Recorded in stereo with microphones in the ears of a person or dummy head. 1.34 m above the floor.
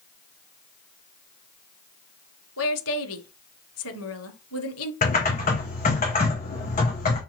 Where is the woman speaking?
70° left (ahead or behind), 0.6 m.